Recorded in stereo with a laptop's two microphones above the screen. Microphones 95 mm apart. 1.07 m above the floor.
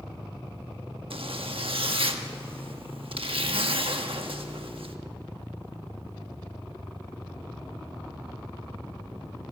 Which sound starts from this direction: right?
A zipper, at 1.1 s.